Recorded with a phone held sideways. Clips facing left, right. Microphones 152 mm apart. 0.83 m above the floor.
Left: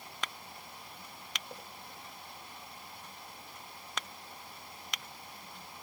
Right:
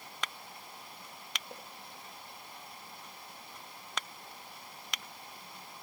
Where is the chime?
No chime in this recording.